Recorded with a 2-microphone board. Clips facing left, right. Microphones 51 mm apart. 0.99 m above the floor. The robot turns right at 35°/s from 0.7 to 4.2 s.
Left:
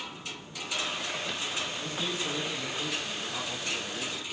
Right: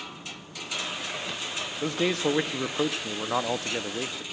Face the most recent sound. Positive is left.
turn(degrees=-35)